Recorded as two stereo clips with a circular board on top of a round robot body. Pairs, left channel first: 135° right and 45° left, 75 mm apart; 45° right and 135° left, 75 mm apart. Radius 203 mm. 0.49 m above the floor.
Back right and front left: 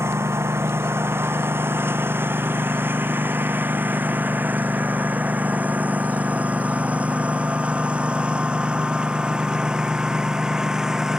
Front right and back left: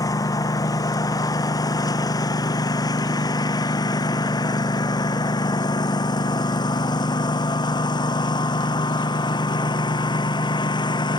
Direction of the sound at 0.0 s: 10° right.